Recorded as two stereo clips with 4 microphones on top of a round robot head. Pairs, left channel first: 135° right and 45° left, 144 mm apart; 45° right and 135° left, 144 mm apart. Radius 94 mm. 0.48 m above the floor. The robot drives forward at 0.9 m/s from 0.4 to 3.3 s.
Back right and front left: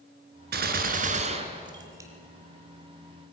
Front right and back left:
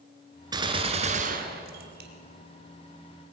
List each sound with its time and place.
0.5 s a gunshot: 70° left, 1.7 m; by 2.1 s 120° left, 1.8 m